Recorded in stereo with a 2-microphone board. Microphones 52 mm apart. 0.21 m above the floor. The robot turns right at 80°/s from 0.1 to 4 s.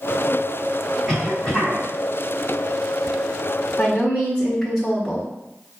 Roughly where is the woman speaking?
Centre.